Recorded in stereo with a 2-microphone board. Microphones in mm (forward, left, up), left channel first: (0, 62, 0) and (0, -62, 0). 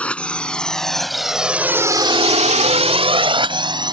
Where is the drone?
10° left (ahead or behind); by 3.9 s 35° right (ahead or behind).